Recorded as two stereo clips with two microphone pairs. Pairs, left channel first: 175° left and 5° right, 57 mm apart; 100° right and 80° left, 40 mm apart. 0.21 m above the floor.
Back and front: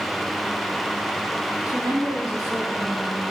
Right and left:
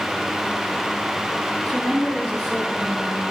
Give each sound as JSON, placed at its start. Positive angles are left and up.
{"t": 1.6, "sound": "a woman speaking", "azimuth_deg": 5, "distance_m": 4.0}